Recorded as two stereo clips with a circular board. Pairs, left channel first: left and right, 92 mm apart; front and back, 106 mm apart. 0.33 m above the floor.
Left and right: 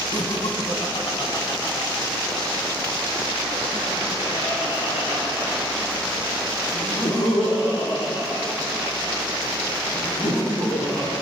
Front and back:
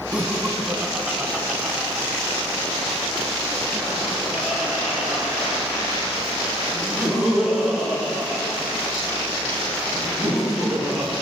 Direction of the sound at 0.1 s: 105° left.